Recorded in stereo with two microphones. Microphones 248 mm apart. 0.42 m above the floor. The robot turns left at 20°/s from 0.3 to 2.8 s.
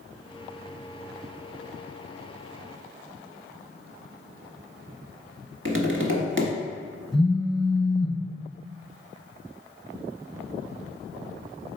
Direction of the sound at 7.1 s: Centre (ahead or behind).